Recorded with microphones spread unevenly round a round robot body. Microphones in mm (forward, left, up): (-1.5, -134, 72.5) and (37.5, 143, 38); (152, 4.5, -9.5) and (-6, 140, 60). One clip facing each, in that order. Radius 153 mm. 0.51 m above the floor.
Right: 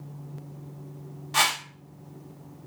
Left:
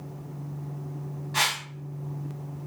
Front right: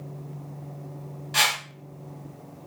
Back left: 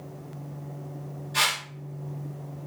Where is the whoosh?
55° right, 0.9 m.